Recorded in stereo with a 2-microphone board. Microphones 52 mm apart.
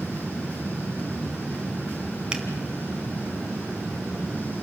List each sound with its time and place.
2.3 s a finger snap: 15° right (ahead or behind), 1.9 m